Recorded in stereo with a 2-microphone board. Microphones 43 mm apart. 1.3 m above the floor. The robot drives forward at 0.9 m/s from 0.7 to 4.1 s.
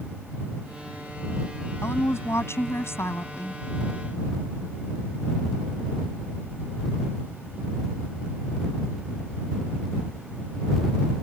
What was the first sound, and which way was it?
A woman speaking, 90° left.